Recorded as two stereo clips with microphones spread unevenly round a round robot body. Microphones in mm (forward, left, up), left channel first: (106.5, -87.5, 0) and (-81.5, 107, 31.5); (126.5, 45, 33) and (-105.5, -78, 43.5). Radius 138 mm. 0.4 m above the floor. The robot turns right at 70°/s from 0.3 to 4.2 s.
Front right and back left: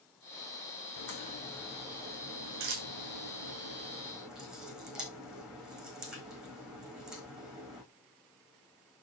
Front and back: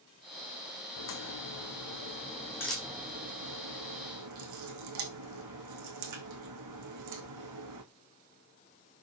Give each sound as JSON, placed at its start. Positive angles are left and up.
{"t": 1.0, "sound": "a crack", "azimuth_deg": -5, "distance_m": 5.0}